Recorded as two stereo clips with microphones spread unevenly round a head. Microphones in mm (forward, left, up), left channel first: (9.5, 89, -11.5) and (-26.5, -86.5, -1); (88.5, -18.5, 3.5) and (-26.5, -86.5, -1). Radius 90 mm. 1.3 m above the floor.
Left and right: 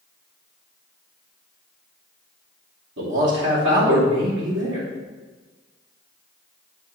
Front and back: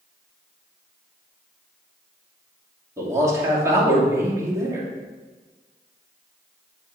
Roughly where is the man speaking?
Right.